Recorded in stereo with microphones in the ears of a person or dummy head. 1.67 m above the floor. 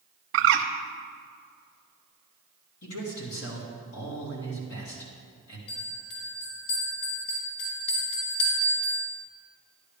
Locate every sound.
0.3 s a bird: 65° right (ahead or behind), 0.8 m
2.8 s a man speaking: 80° left, 3.5 m
5.7 s a bell: 65° left (ahead or behind), 3.5 m